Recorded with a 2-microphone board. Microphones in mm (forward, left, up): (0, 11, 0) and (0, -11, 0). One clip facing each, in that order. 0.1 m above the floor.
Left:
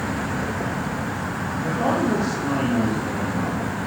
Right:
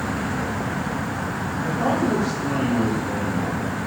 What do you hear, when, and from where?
1.6 s a man speaking: 30° left (ahead or behind), 6.5 m